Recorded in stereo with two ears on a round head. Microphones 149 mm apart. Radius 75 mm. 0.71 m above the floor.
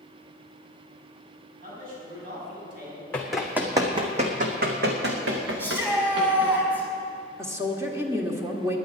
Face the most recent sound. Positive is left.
turn(degrees=-15)  # may be behind; listen again after turning